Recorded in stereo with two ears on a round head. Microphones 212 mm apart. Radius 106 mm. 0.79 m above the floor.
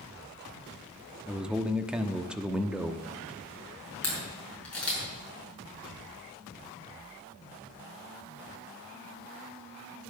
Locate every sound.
1.3 s a man speaking: 5° right (ahead or behind), 1.0 m
4.0 s a camera shutter: 5° left (ahead or behind), 6 m